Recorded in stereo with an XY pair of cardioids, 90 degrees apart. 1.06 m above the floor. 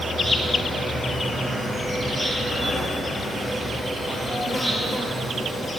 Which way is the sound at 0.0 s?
30° left.